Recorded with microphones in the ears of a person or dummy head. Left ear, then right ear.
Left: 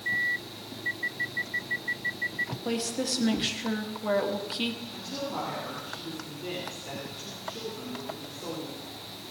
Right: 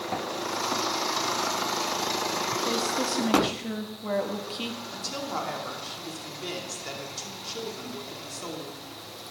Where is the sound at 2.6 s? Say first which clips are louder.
Right 4 dB; 10° left (ahead or behind), 1.3 m.